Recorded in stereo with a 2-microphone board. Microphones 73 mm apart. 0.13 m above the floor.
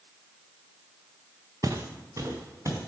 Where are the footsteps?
50° right (ahead or behind), 0.9 m; by 2.8 s 45° right (ahead or behind), 2.5 m.